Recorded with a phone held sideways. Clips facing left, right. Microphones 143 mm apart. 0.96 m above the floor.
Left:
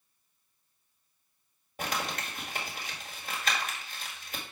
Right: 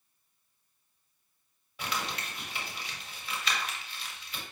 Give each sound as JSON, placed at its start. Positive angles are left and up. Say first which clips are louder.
{"t": 1.8, "sound": "crumpling", "louder": "left 2 dB", "side_deg": 50, "distance_m": 1.7}